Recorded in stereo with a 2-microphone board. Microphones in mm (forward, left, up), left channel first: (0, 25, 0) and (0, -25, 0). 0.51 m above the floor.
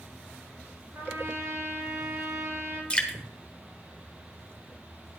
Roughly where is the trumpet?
Right.